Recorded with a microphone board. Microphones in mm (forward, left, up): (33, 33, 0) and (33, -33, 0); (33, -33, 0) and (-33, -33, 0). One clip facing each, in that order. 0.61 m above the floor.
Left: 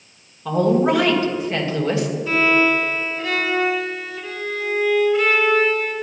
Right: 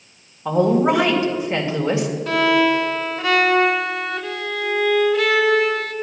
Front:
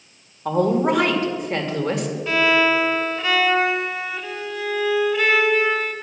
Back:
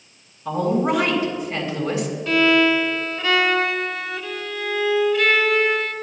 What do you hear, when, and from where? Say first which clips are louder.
0.5 s a woman speaking: right 1 dB, front 2 dB; 25° right, 2 m
2.3 s a violin: right 1 dB, back 1 dB; 75° right, 1.2 m